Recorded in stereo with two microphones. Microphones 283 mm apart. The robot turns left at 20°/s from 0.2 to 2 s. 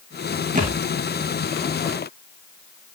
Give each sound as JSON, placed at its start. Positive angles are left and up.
{"t": 0.6, "sound": "a thud", "side_deg": -25, "distance_m": 4.5}